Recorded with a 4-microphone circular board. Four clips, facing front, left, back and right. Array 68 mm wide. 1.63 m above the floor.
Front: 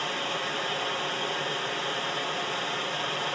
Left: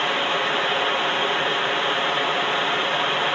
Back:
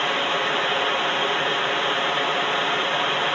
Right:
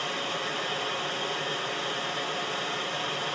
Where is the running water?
135° left, 1.1 m.